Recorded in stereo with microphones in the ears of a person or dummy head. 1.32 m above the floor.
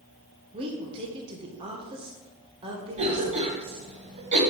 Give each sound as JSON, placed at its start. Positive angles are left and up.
{"t": 0.5, "sound": "a woman speaking", "side_deg": -30, "distance_m": 1.2}
{"t": 3.0, "sound": "a cough", "side_deg": -35, "distance_m": 1.3}